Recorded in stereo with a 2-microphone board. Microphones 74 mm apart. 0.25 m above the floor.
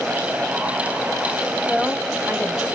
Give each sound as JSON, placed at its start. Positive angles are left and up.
{"t": 1.7, "sound": "a woman speaking", "side_deg": 5, "distance_m": 0.9}